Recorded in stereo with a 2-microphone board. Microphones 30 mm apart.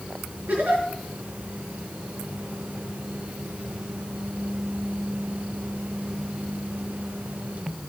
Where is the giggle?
75° right (ahead or behind), 5 m.